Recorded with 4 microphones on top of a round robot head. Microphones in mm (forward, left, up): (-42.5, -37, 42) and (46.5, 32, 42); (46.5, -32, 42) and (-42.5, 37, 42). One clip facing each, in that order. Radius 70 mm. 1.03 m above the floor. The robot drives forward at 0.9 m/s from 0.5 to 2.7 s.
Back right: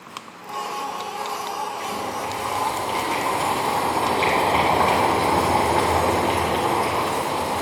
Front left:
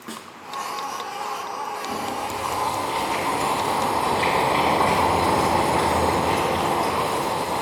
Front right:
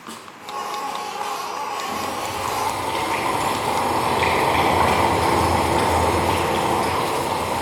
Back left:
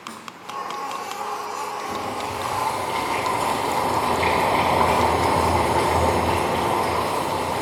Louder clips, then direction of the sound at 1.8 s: Even, front right 1 dB; 110° right.